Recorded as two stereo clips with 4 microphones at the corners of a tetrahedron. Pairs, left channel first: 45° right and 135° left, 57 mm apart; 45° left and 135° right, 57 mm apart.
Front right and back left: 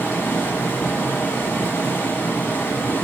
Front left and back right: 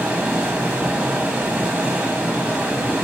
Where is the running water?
75° right, 1.5 m.